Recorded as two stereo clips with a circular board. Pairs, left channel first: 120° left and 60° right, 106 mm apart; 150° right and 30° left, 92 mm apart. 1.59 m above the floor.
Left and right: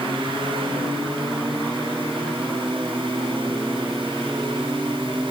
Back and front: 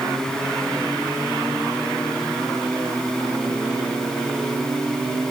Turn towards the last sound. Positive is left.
No sound to turn to.